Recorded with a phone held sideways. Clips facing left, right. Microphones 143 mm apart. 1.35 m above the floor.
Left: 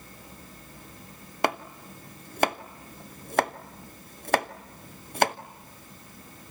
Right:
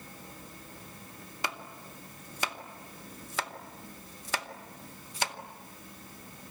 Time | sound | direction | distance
1.4 | chopping | 60° left (ahead or behind) | 0.8 m